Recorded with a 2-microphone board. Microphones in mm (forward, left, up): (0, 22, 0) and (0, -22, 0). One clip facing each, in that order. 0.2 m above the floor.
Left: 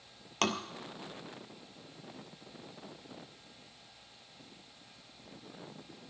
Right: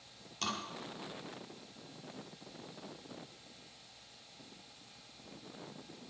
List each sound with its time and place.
0.4 s tapping: 60° left (ahead or behind), 1.5 m